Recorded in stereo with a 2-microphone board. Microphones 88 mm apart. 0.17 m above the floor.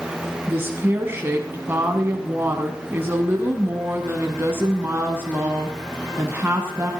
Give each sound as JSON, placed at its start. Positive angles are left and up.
{"t": 0.5, "sound": "a woman speaking", "side_deg": -25, "distance_m": 1.6}